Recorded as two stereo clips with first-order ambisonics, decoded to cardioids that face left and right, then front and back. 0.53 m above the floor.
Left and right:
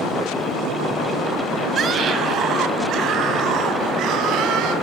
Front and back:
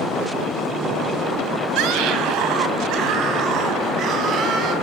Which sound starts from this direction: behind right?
A scream, at 1.8 s.